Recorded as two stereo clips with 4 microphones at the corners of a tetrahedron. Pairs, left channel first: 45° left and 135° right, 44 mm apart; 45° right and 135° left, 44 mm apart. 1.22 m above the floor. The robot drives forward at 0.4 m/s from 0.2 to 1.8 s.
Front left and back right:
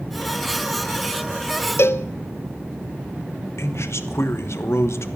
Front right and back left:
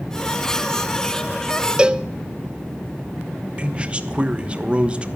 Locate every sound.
1.8 s a cowbell: 65° left, 0.5 m
3.6 s a man speaking: 70° left, 1.1 m